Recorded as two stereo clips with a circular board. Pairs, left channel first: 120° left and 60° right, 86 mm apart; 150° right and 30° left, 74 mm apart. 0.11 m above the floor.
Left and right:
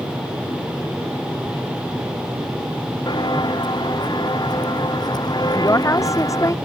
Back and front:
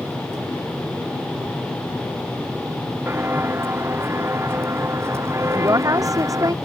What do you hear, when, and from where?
3.1 s footsteps: 90° left; by 6.5 s 80° left
5.5 s a woman speaking: 70° left